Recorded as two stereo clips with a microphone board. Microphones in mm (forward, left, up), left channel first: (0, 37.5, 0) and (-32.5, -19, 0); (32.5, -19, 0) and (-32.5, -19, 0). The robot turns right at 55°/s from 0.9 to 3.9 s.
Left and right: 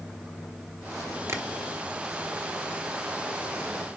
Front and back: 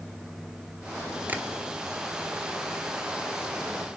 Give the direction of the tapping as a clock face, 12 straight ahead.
4 o'clock.